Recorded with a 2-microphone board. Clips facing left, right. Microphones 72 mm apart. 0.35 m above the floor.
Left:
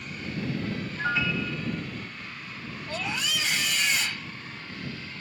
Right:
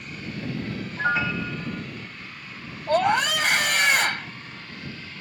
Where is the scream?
55° right (ahead or behind).